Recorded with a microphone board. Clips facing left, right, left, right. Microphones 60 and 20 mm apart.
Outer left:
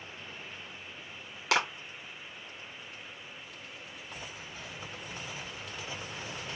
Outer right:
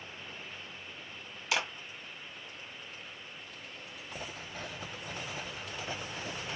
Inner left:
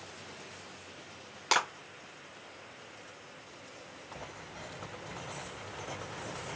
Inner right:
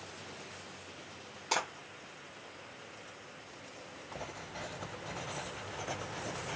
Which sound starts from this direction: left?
A clap, at 1.5 s.